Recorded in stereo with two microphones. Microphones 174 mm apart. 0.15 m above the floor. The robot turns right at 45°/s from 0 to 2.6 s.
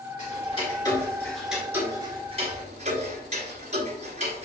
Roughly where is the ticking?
Left.